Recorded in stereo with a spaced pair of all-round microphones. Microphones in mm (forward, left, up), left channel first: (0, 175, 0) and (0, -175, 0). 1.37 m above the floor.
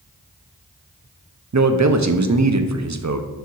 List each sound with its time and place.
1.5 s a man speaking: 50° right (ahead or behind), 0.6 m